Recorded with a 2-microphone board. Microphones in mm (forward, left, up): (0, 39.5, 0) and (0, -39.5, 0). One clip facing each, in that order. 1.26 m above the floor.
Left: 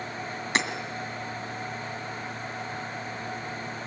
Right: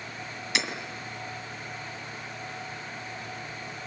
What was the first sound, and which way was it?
Hammering, 40° left (ahead or behind).